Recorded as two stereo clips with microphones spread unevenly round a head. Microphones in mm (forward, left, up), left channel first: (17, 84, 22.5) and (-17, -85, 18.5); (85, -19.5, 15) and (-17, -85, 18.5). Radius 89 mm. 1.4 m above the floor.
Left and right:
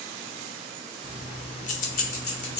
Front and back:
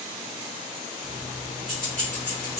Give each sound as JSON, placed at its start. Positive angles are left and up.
{"t": 1.0, "sound": "keys jangling", "azimuth_deg": 160, "distance_m": 0.7}